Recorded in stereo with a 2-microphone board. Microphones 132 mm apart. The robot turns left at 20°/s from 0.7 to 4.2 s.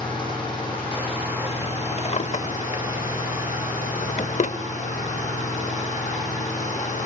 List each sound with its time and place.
0.0 s an engine running: 145° left, 7 m; by 7.1 s 75° left, 7 m
2.0 s a drawer: 55° left (ahead or behind), 0.7 m; by 4.6 s 65° left (ahead or behind), 0.7 m